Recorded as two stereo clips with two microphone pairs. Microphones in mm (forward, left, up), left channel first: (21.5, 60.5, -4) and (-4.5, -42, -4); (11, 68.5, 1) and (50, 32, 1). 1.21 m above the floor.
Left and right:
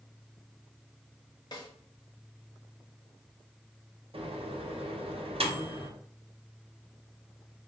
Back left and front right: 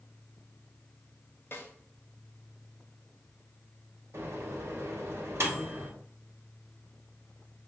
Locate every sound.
1.5 s a snare drum: 110° left, 0.8 m
4.1 s a microwave: 75° right, 0.7 m